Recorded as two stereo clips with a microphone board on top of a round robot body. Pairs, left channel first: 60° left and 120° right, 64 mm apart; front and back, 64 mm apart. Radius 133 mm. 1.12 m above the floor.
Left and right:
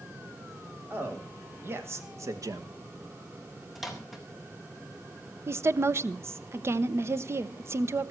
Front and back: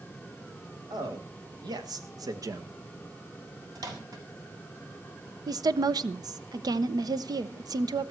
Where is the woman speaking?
170° right, 0.9 m.